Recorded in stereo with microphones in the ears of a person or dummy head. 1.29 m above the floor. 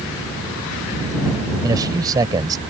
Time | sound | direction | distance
1.6 | a man speaking | 20° right (ahead or behind) | ?